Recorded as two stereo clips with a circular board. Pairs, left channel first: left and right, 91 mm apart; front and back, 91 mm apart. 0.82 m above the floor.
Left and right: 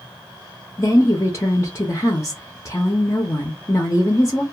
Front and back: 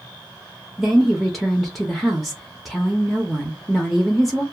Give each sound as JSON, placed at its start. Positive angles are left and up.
{"t": 0.8, "sound": "a woman speaking", "azimuth_deg": 85, "distance_m": 0.5}